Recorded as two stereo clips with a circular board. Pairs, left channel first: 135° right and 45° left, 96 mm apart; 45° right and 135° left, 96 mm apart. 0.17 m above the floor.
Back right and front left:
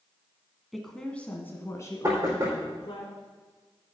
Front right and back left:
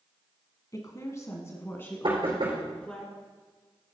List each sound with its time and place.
0.7 s a woman speaking: 45° right, 1.5 m; by 3.0 s 125° right, 2 m
2.0 s knocking: 105° left, 4.5 m